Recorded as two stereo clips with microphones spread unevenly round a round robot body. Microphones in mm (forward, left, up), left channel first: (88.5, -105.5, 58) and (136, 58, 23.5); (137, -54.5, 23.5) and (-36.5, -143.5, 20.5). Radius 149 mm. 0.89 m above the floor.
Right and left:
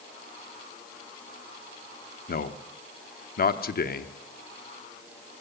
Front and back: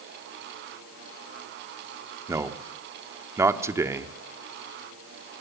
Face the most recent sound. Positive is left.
turn(degrees=-80)